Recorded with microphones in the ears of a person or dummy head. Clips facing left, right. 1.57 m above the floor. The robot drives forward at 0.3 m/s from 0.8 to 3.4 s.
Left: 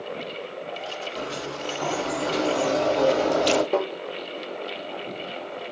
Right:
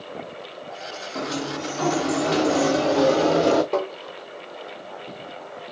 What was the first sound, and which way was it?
A sliding door, 60° right (ahead or behind).